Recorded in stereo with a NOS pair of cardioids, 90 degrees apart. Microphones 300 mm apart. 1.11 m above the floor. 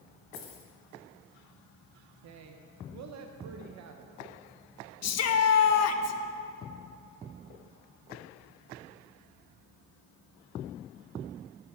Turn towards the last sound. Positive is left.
turn(degrees=60)